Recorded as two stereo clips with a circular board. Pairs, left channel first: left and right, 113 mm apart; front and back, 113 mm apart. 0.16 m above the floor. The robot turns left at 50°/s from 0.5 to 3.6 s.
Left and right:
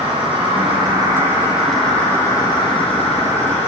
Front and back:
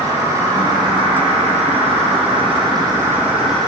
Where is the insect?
120° right, 7.5 m; by 3.7 s 85° left, 7.5 m.